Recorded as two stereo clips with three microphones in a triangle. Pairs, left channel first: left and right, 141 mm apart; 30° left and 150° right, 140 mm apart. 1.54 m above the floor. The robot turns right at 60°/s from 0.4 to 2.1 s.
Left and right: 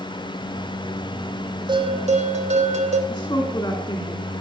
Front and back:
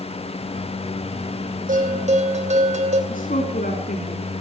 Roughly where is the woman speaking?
Ahead left.